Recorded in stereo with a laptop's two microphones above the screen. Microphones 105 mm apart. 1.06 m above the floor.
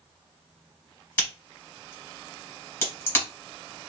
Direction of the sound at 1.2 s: 25° left (ahead or behind).